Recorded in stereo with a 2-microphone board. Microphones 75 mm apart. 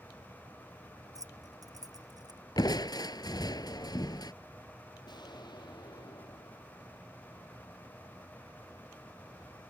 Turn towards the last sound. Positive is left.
turn(degrees=70)  # may be behind; listen again after turning